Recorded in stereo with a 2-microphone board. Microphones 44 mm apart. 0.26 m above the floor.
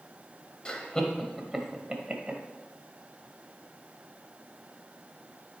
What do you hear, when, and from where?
0.7 s laughter: 20° left (ahead or behind), 1.2 m; by 2.4 s 30° right (ahead or behind), 1.3 m